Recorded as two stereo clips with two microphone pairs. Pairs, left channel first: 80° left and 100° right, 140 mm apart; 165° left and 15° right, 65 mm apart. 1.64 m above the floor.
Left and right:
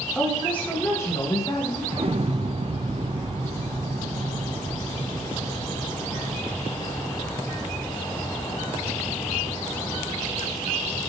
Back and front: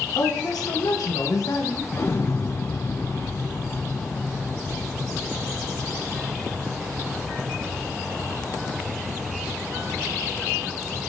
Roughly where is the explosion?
Behind right.